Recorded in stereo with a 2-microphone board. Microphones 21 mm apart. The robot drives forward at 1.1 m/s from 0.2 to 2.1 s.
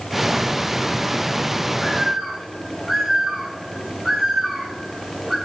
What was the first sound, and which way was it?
A bird, 5° right (ahead or behind).